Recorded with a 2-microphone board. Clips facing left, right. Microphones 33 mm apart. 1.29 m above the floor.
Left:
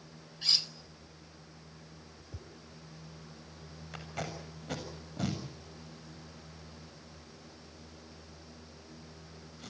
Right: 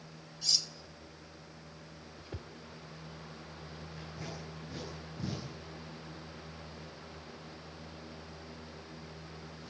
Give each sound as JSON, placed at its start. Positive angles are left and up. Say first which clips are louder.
{"t": 0.4, "sound": "cutlery clinking", "louder": "left 3 dB", "side_deg": 35, "distance_m": 0.8}
{"t": 2.2, "sound": "a whoosh", "louder": "right 6 dB", "side_deg": -50, "distance_m": 1.7}
{"t": 3.9, "sound": "tape being pulled", "louder": "left 6 dB", "side_deg": 80, "distance_m": 6.5}